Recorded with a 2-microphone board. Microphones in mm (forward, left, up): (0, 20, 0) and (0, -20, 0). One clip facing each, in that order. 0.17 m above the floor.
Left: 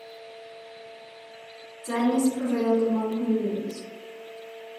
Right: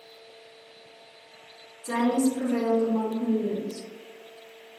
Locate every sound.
1.8 s a woman speaking: 25° left (ahead or behind), 1.3 m; by 3.9 s 50° left (ahead or behind), 2 m